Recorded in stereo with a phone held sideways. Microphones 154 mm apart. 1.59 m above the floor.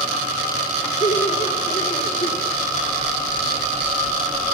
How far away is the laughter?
About 1.6 m.